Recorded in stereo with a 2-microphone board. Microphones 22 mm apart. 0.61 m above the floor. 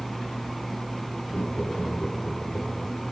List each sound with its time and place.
1.3 s laughter: 70° left (ahead or behind), 9.5 m